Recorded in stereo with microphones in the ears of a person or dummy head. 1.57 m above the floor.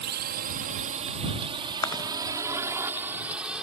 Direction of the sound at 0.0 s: 55° right (ahead or behind).